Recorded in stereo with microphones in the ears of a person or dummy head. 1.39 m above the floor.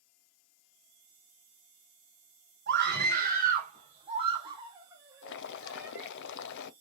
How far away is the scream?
About 1.8 m.